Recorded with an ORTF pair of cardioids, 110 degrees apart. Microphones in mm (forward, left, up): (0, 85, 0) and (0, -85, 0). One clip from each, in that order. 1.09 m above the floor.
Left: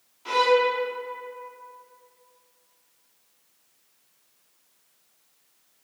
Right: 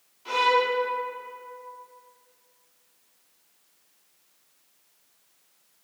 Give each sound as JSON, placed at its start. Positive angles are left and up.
{"t": 0.2, "sound": "a violin", "azimuth_deg": 25, "distance_m": 3.5}